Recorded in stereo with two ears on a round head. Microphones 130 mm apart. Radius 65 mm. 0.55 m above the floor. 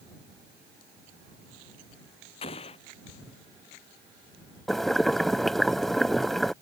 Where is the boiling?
Centre (ahead or behind).